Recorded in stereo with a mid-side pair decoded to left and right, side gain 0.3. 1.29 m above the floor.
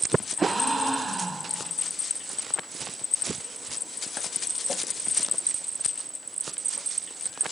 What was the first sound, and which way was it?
A gasp, 45° right.